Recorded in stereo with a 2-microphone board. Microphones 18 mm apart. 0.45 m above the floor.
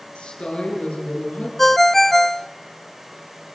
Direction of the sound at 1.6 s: 10° left (ahead or behind).